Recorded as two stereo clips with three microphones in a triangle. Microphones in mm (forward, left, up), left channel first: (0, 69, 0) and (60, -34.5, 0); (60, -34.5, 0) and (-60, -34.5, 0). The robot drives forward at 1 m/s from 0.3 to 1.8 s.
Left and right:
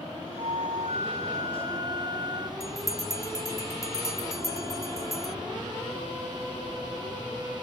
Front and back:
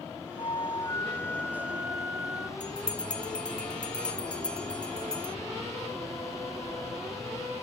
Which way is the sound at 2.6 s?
75° left.